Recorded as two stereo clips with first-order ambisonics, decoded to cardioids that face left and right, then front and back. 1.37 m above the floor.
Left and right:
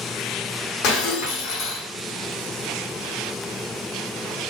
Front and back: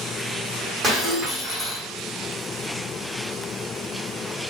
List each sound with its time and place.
0.8 s breaking glass: 110° left, 3.5 m